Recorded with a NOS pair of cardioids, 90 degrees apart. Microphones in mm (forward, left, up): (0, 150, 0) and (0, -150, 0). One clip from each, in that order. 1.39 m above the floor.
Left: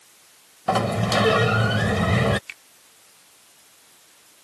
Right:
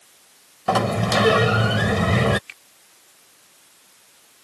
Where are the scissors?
I don't hear scissors.